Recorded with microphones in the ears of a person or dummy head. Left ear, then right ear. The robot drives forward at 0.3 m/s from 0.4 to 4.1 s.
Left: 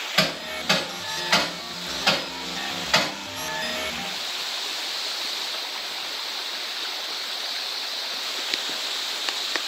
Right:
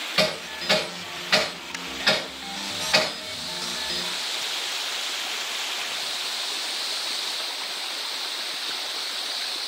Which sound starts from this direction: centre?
Hammering, at 0.2 s.